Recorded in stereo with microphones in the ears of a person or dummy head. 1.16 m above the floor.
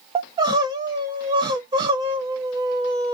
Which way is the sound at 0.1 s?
25° right (ahead or behind).